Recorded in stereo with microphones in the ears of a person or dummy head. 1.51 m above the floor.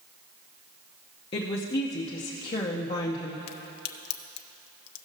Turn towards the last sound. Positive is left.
turn(degrees=70)  # may be behind; listen again after turning